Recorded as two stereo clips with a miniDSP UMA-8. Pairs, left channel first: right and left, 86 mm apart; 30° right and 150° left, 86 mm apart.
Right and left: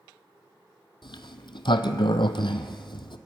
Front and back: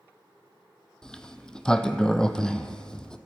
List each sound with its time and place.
1.0 s a sliding door: 110° right, 0.7 m